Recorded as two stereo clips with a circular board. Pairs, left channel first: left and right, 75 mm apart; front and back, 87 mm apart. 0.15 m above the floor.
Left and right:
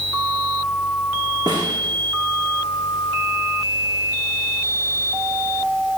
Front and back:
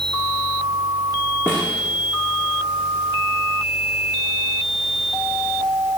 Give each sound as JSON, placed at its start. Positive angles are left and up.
{"t": 1.5, "sound": "a snare drum", "azimuth_deg": -65, "distance_m": 4.0}